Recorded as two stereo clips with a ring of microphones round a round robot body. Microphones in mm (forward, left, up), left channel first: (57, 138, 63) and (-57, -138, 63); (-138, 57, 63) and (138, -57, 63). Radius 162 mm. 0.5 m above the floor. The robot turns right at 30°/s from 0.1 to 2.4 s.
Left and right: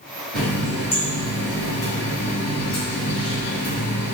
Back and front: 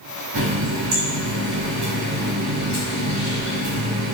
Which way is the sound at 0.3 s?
20° right.